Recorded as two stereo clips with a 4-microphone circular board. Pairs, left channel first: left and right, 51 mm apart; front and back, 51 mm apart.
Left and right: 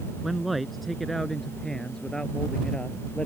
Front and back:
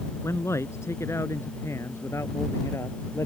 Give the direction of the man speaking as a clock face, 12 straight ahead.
12 o'clock.